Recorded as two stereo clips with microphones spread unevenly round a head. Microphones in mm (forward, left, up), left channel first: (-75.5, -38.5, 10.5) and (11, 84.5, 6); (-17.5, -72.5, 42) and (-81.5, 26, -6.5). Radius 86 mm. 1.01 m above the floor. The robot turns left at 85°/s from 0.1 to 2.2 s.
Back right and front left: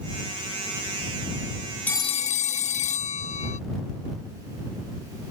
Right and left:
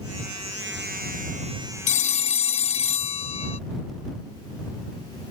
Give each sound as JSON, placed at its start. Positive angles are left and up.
{"t": 1.9, "sound": "a phone ringing", "azimuth_deg": -45}